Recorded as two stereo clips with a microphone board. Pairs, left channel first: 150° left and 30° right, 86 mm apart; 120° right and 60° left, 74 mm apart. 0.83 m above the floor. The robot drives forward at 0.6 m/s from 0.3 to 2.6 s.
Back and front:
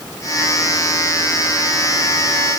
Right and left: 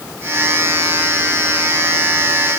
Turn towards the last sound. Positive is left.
No sound to turn to.